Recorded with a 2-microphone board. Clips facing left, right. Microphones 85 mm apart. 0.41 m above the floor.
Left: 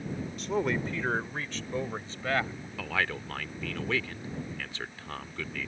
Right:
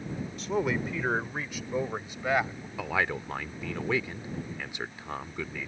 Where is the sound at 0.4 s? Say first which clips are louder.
Right 1 dB; centre (ahead or behind); by 2.7 s 15° right (ahead or behind).